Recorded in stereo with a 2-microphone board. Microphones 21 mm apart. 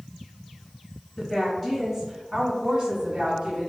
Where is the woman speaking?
20° left (ahead or behind), 1.1 m; by 3.7 s 35° right (ahead or behind), 1.5 m.